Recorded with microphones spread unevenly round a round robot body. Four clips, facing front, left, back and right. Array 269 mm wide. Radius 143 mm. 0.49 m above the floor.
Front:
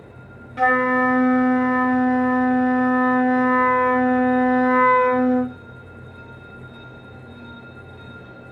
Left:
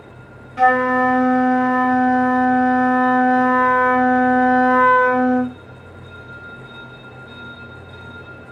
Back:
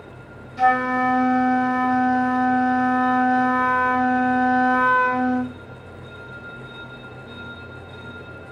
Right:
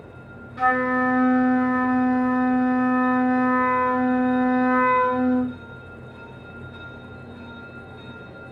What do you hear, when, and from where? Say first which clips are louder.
0.6 s a flute: left 6 dB, even; 40° left, 0.9 m